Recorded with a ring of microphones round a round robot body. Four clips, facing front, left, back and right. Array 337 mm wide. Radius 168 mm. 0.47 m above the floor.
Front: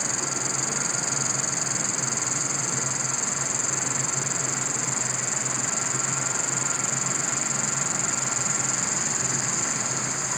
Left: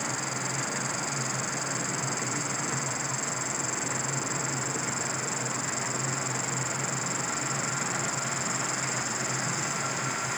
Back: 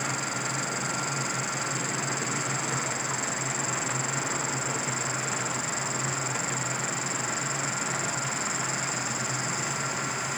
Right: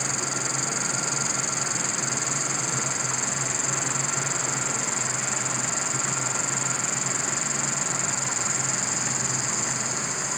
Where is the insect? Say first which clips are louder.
Right 2 dB, even; 45° right.